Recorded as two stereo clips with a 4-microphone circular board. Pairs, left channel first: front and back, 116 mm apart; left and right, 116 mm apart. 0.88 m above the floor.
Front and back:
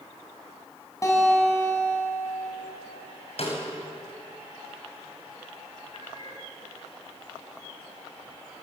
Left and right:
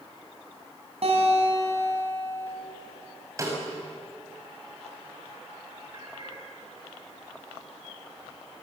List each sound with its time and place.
1.0 s a guitar: 65° right, 7.5 m
3.4 s a snare drum: 30° right, 6 m
5.9 s a cat meowing: 40° right, 8 m